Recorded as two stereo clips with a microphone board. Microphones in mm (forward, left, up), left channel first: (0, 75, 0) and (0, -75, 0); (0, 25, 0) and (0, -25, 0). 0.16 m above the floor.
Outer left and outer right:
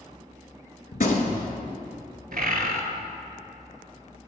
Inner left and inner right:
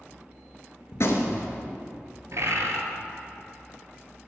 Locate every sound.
0.9 s a gunshot: 65° left (ahead or behind), 0.7 m
2.3 s a bird: 75° right (ahead or behind), 0.6 m